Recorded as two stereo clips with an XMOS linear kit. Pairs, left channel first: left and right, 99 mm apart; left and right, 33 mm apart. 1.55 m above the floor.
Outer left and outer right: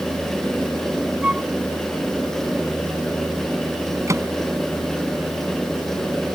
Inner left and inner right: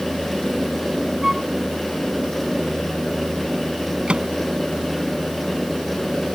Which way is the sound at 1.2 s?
10° right (ahead or behind).